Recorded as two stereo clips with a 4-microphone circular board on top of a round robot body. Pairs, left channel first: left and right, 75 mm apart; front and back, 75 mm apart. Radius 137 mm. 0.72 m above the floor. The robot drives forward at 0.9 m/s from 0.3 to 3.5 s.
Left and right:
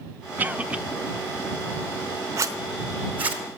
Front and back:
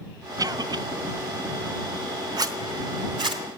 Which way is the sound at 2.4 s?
140° right.